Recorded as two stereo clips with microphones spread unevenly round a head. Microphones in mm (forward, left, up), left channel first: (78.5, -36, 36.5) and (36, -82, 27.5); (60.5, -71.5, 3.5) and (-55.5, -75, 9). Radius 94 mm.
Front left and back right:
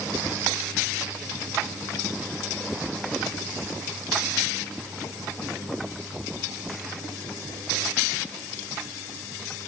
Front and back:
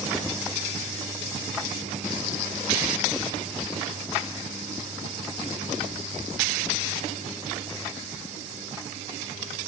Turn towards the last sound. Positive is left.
No sound to turn to.